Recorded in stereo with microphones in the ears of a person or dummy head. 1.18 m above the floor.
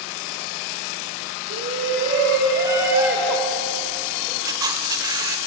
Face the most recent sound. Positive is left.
turn(degrees=-20)  # may be behind; listen again after turning